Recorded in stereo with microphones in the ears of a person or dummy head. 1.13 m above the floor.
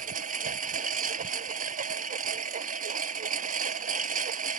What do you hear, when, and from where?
0.0 s a lawn mower: 45° right (ahead or behind)